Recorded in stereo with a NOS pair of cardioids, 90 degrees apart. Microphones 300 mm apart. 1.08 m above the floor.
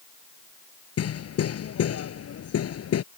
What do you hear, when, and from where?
1.0 s hammering: 55° left